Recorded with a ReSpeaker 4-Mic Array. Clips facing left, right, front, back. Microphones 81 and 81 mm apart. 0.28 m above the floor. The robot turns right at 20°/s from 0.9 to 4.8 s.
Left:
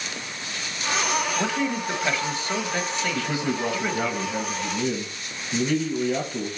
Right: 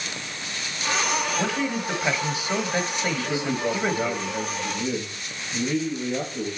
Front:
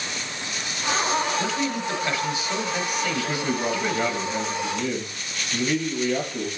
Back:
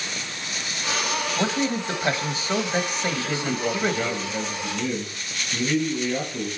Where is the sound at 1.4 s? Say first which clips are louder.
Even, back 1 dB; straight behind, 1.2 m; by 4.1 s 125° right, 1.2 m.